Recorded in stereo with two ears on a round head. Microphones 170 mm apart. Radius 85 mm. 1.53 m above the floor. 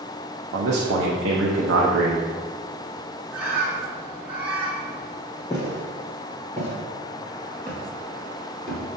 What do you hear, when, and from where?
0.5 s a man speaking: 65° right (ahead or behind), 0.6 m
3.3 s a bird: 10° right (ahead or behind), 1.0 m
5.5 s footsteps: 15° left (ahead or behind), 1.9 m; by 8.8 s 5° left (ahead or behind), 1.6 m